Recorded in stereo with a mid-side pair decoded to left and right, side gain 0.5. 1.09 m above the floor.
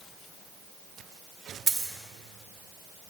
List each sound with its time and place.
1.7 s a dropped coin: 30° right, 2.0 m